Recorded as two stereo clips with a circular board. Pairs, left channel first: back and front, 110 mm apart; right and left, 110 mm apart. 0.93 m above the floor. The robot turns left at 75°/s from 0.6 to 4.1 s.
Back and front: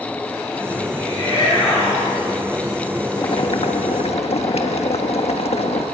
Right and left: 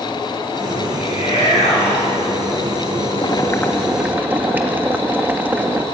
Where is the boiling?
130° right, 1.3 m; by 5.9 s 160° left, 1.3 m.